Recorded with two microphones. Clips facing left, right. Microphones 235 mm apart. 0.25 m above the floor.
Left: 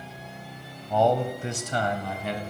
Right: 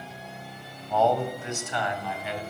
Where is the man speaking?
15° left (ahead or behind), 1.1 m; by 2.4 s 50° left (ahead or behind), 1.6 m.